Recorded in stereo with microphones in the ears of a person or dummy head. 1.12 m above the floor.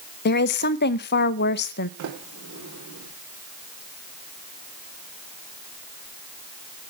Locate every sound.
0.2 s a woman speaking: 60° left (ahead or behind), 0.7 m
2.0 s a sliding door: 65° right (ahead or behind), 3.5 m